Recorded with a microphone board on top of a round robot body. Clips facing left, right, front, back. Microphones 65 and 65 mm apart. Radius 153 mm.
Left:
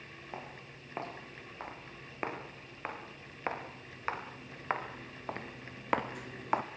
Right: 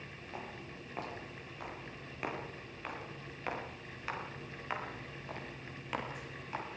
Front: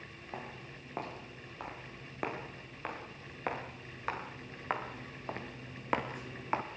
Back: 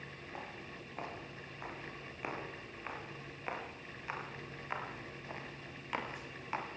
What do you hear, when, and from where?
0.3 s footsteps: 30° left, 10 m; by 6.7 s 65° left, 1.7 m